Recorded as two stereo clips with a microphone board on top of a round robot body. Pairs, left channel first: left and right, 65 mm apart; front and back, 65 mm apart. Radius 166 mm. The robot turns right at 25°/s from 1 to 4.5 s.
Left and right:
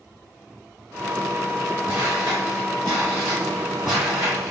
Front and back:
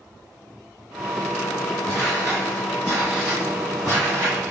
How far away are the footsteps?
About 1.5 m.